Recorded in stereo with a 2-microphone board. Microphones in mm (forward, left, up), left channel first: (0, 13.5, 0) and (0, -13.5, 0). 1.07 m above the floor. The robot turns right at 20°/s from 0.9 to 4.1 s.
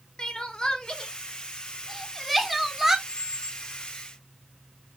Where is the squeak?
55° right (ahead or behind), 2 m; by 3.7 s 40° right (ahead or behind), 2 m.